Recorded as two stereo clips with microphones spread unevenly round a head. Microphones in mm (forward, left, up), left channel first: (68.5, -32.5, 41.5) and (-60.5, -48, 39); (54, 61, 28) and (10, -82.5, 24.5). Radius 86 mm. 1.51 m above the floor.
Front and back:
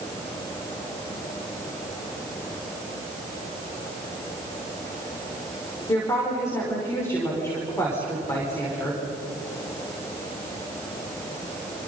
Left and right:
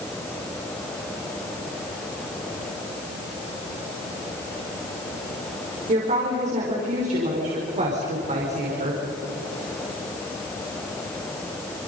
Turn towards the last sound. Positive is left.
turn(degrees=-60)